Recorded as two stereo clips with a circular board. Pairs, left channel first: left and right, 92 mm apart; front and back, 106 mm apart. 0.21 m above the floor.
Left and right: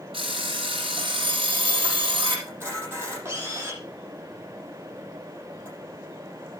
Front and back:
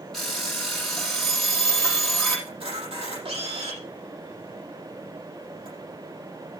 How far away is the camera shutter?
About 8 m.